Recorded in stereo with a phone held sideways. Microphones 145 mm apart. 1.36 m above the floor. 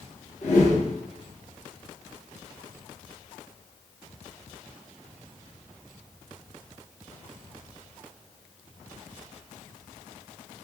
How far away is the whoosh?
About 1.1 m.